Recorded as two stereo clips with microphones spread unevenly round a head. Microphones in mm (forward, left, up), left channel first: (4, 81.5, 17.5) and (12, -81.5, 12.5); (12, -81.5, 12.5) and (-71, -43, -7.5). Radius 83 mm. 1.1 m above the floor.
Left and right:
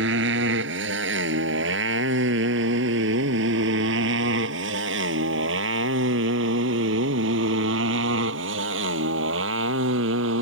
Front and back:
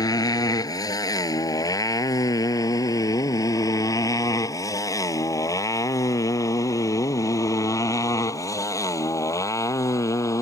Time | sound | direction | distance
0.0 | a motorcycle | 70° right | ?